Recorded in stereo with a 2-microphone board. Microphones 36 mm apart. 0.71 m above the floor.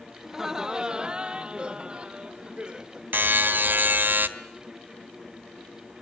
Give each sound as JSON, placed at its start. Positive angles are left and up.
{"t": 0.2, "sound": "laughter", "side_deg": -15, "distance_m": 0.6}
{"t": 3.1, "sound": "a buzzer", "side_deg": -70, "distance_m": 1.6}